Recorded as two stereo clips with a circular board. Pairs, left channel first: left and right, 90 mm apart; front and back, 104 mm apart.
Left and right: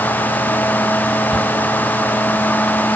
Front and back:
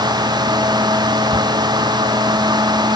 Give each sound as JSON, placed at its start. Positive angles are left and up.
{"t": 1.3, "sound": "a shout", "azimuth_deg": -175}